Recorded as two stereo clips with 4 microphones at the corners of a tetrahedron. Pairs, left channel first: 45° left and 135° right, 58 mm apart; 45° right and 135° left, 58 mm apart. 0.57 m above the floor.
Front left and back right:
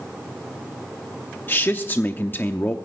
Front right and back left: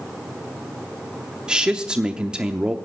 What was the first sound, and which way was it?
A man speaking, 70° left.